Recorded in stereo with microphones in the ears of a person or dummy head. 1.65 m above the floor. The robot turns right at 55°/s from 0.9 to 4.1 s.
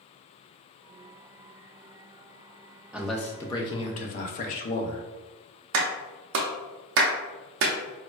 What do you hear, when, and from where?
2.9 s a man speaking: 10° right, 0.5 m; by 5.0 s 55° left, 0.5 m
5.7 s a clap: 65° right (ahead or behind), 0.6 m